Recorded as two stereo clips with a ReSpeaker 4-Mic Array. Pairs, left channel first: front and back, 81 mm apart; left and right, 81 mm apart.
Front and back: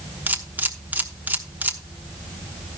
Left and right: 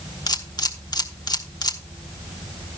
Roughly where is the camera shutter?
Behind left.